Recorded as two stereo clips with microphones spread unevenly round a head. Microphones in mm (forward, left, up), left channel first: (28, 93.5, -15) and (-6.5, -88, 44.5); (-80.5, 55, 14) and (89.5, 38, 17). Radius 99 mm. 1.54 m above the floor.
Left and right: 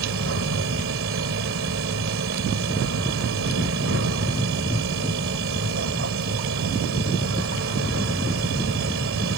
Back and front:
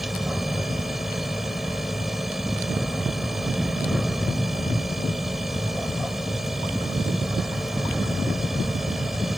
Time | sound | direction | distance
0.0 | a machine running | 95° right | ?